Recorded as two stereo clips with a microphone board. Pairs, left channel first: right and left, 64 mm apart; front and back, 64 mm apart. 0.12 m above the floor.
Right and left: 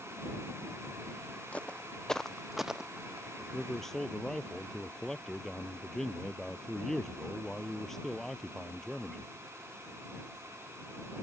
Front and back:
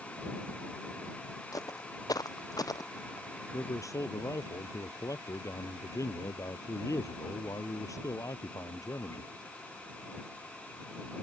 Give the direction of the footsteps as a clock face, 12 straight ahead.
1 o'clock.